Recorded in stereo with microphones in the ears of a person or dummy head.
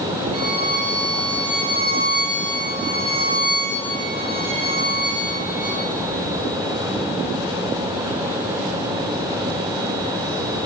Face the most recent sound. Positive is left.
turn(degrees=-20)  # may be behind; listen again after turning